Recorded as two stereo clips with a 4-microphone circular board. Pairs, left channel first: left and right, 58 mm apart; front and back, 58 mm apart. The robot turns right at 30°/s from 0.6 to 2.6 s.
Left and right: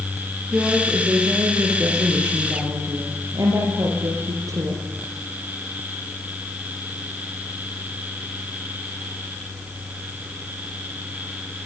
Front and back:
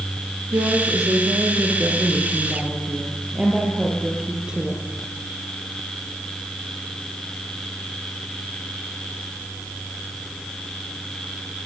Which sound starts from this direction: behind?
A woman speaking, at 0.5 s.